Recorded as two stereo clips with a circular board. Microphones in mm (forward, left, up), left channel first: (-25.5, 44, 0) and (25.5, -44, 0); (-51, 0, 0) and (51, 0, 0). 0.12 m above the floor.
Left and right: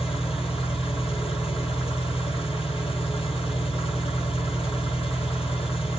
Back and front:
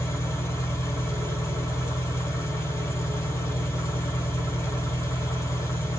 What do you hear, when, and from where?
0.0 s an engine running: 115° left, 1.8 m